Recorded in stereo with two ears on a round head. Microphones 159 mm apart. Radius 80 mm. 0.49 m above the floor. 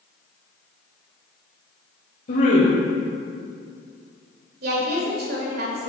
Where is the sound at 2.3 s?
50° left (ahead or behind), 1.7 m.